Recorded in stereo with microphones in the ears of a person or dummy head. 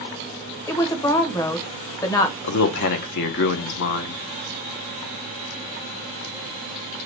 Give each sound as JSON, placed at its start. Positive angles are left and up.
{"t": 0.7, "sound": "a woman speaking", "side_deg": 20, "distance_m": 0.8}
{"t": 2.4, "sound": "a man speaking", "side_deg": 50, "distance_m": 0.6}